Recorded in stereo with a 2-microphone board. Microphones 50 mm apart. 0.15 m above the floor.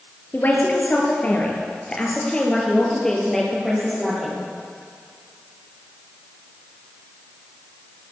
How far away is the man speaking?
About 3.5 m.